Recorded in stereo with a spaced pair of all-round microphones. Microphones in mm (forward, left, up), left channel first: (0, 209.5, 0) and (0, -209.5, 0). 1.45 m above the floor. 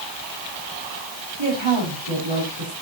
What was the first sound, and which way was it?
A woman speaking, 85° right.